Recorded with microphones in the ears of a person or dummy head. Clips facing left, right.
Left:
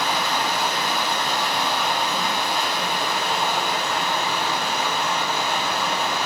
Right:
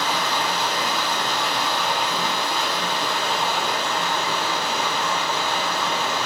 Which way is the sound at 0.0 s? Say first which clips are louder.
Even; 10° left (ahead or behind).